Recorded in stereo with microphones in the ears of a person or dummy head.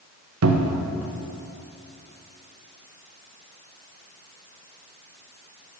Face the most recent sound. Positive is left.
turn(degrees=-90)